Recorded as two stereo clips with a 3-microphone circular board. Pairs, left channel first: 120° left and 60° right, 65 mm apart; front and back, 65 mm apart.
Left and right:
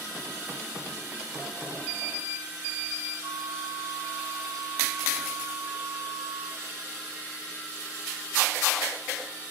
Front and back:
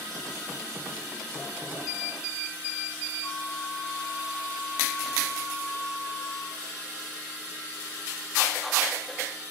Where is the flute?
60° right, 3.5 m.